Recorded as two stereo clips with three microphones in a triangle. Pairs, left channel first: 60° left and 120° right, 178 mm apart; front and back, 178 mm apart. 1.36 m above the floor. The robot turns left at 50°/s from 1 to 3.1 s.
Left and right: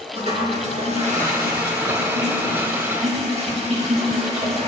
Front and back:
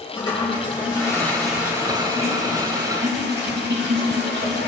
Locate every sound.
0.1 s a toilet flushing: 65° right, 2.0 m; by 4.7 s 170° right, 2.0 m